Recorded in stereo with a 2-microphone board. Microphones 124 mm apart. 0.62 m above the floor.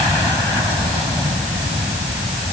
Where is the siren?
No siren in this recording.